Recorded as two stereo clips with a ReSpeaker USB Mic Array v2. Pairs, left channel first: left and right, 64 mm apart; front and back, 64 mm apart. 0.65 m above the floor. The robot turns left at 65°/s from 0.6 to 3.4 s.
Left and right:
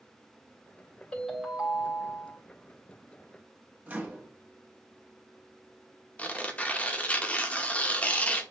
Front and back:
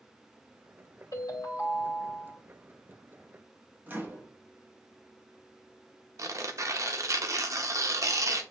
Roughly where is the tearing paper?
Behind left.